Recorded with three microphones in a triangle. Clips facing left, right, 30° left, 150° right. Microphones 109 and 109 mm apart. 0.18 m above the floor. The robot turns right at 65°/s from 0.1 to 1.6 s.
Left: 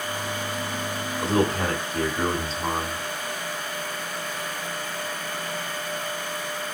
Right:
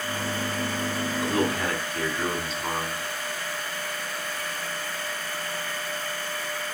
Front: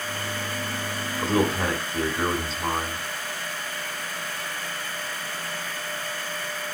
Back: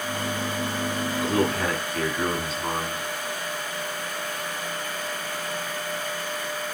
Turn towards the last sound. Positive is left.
turn(degrees=65)